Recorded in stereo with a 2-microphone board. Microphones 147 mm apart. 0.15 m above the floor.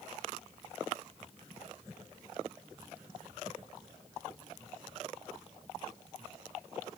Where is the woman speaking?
I don't hear a woman speaking.